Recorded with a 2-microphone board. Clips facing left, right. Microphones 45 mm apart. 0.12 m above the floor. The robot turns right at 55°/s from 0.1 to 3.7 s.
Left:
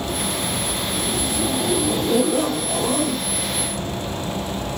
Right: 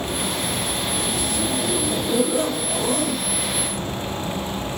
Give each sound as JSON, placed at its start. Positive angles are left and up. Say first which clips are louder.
{"t": 0.9, "sound": "a zipper", "louder": "left 1 dB", "azimuth_deg": 25, "distance_m": 1.6}